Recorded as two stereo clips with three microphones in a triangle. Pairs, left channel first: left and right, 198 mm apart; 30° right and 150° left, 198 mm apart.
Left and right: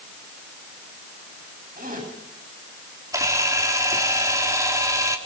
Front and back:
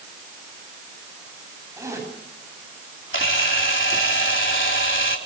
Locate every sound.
1.8 s a zipper: 135° right, 9.5 m
3.1 s a camera shutter: 15° right, 4 m